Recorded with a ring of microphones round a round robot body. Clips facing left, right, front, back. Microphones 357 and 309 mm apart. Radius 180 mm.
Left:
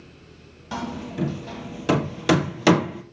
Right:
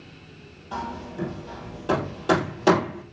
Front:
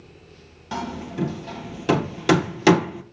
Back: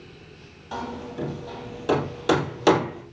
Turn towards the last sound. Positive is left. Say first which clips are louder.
# left 4 dB, front 3 dB
turn(degrees=50)